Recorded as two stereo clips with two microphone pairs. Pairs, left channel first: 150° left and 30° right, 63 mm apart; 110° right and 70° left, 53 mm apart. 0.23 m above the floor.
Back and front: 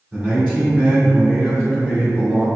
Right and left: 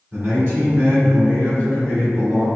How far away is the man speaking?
About 1.9 m.